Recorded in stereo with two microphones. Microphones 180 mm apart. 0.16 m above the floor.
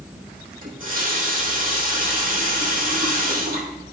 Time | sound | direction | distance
0.6 | a running tap | 50° right (ahead or behind) | 4 m